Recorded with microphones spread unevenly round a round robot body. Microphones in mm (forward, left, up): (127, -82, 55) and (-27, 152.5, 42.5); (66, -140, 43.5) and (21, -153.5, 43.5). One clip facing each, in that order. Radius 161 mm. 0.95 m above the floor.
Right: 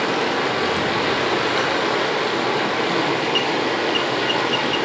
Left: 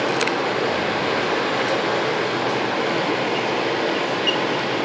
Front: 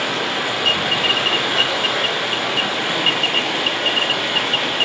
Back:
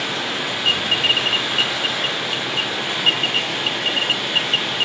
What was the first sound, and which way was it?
Running water, straight ahead.